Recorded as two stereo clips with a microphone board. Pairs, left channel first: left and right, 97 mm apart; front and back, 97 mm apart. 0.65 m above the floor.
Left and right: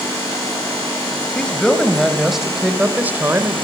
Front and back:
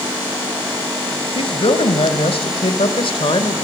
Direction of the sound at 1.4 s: 10° left.